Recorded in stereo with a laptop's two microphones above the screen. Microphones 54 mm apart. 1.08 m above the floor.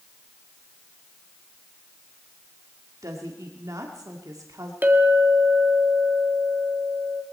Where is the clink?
35° right (ahead or behind), 1.3 m.